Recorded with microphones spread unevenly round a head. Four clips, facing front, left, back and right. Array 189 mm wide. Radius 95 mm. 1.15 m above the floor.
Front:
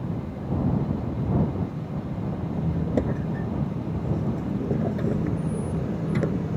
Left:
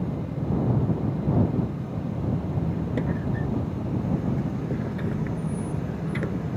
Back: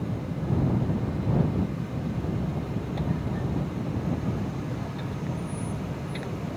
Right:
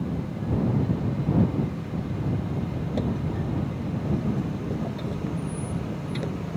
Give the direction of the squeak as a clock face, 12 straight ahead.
12 o'clock.